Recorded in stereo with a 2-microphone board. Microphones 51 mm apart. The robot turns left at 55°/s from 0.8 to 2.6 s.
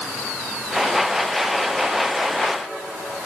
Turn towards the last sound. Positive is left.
No sound to turn to.